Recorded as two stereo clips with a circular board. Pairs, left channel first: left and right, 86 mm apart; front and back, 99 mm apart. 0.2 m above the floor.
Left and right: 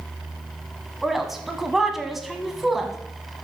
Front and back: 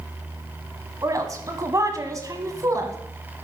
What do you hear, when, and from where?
1.0 s a woman speaking: 175° right, 1.2 m